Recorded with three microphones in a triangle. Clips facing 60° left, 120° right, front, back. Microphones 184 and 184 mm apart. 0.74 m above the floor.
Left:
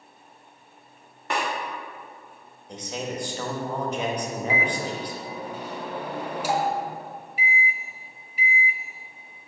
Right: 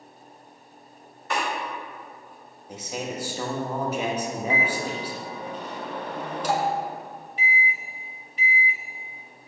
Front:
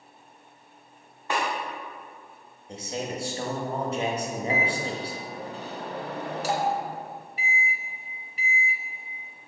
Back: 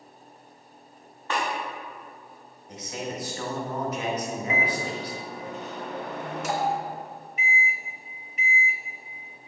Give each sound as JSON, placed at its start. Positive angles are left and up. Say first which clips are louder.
{"t": 1.3, "sound": "a snare drum", "louder": "even, front 1 dB", "azimuth_deg": 75, "distance_m": 1.4}
{"t": 2.7, "sound": "a man speaking", "louder": "even, front 2 dB", "azimuth_deg": -40, "distance_m": 0.7}
{"t": 4.5, "sound": "a microwave", "louder": "even, front 1 dB", "azimuth_deg": -15, "distance_m": 0.6}